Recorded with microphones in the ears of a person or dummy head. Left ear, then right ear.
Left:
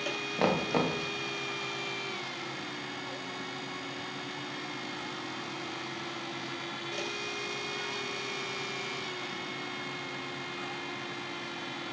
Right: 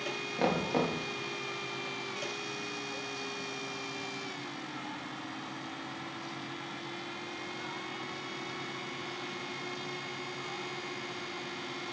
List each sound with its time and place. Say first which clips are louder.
0.4 s knocking: left 2 dB; 15° left (ahead or behind), 0.9 m